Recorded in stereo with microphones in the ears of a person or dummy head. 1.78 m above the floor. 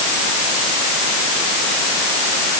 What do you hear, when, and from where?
Only background noise.